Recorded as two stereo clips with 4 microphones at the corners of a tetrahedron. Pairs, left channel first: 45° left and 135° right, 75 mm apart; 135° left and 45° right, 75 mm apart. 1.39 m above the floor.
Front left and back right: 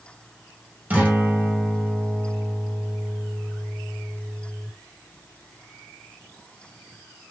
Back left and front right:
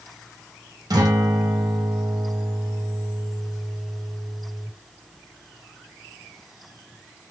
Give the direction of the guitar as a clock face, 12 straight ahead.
2 o'clock.